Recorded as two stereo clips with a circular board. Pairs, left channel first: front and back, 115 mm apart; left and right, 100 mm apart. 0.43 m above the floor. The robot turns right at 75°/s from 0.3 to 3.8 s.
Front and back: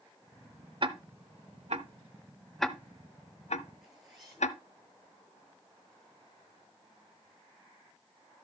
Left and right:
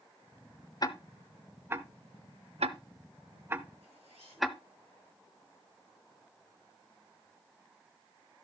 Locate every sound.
0.8 s ticking: 135° left, 0.7 m; by 4.6 s straight ahead, 0.7 m
3.8 s a zipper: 90° right, 10 m